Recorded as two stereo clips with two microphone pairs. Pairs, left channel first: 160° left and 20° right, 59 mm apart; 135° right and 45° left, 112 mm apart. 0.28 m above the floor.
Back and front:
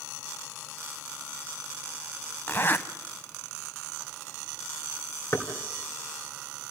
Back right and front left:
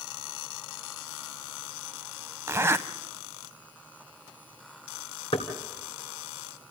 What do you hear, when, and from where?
2.5 s a zipper: 110° left, 0.7 m
5.3 s knocking: 165° right, 2.5 m